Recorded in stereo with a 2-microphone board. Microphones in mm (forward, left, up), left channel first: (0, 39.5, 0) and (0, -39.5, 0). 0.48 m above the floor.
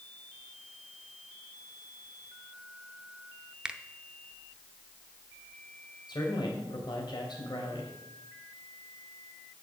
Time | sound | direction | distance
3.6 | a finger snap | 10° right (ahead or behind) | 0.6 m
6.1 | a man speaking | 65° left (ahead or behind) | 3 m